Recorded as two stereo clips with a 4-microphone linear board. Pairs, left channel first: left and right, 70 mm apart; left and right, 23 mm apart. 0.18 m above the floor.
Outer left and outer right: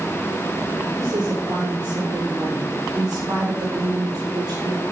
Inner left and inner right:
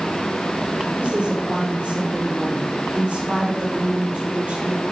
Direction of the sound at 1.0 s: 75° right (ahead or behind).